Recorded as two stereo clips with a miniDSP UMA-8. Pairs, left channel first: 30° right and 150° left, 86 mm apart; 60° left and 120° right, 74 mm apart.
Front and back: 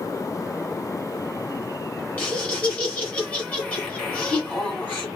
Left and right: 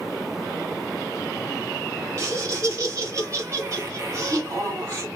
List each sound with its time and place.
2.2 s laughter: 95° right, 2 m